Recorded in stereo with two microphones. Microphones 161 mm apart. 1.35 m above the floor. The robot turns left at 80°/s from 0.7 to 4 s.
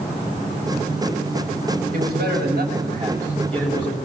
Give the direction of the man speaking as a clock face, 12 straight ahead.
2 o'clock.